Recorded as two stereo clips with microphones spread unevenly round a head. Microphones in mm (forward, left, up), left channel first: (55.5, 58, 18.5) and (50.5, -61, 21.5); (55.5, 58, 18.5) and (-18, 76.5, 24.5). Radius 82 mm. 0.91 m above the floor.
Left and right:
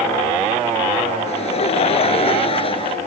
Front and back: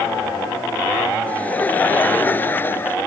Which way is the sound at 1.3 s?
55° left.